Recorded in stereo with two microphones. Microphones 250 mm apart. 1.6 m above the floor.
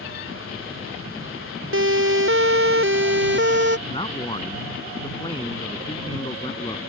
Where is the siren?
55° right (ahead or behind); by 3.8 s 45° right (ahead or behind).